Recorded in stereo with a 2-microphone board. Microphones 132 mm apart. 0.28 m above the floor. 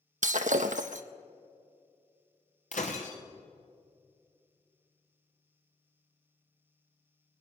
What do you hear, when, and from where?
0.2 s breaking glass: 75° right (ahead or behind), 0.7 m
2.7 s breaking glass: 70° left (ahead or behind), 2 m